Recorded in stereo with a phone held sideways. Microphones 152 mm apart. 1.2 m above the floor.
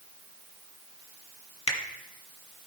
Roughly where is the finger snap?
Left.